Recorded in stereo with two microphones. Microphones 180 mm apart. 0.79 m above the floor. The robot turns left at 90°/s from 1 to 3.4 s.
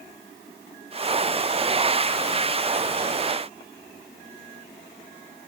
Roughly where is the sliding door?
No sliding door in this recording.